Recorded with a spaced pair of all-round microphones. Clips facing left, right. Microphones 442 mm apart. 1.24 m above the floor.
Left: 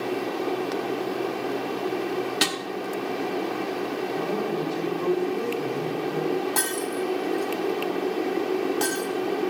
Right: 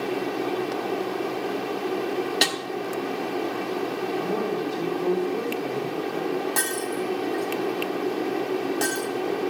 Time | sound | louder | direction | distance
2.4 | a snare drum | even | 20° left (ahead or behind) | 1.0 m
4.2 | a woman speaking | right 1 dB | 85° left | 3.5 m
6.6 | breaking glass | even | 20° left (ahead or behind) | 2.0 m